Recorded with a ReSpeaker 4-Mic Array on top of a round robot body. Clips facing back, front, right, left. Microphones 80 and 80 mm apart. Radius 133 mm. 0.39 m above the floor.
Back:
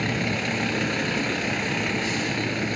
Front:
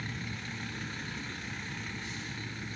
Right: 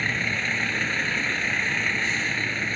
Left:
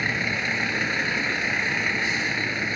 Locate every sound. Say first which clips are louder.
0.0 s a vehicle: back 14 dB, left 1 dB; 170° left